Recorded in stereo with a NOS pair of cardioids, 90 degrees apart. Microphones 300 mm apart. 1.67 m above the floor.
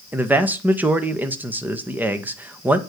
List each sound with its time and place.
0.1 s a man speaking: 5° right, 1.5 m